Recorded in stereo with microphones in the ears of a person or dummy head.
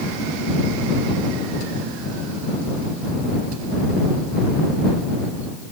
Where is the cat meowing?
I don't hear a cat meowing.